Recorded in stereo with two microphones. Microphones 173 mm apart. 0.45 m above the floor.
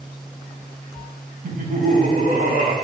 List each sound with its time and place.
1.4 s laughter: 45° right (ahead or behind), 3 m; by 2.7 s 55° right (ahead or behind), 3.5 m